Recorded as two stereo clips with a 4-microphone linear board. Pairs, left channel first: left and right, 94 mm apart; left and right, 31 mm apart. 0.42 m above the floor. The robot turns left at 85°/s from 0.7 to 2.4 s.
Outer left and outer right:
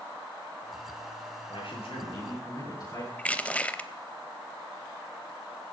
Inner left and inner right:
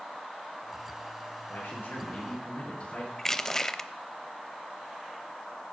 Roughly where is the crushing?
Centre.